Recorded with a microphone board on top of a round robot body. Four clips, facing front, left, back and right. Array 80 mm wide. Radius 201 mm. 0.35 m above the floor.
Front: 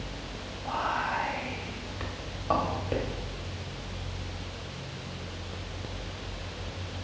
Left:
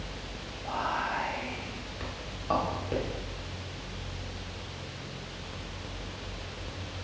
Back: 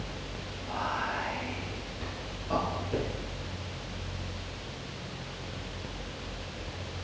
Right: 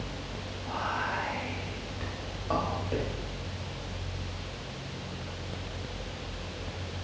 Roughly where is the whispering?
Ahead left.